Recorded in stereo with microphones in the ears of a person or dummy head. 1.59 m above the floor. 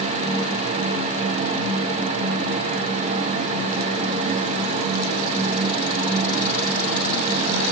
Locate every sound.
Only background noise.